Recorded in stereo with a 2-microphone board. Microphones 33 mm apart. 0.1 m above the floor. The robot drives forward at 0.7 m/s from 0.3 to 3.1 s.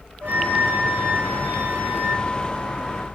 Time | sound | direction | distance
0.2 | a flute | 75° right (ahead or behind) | 3.5 m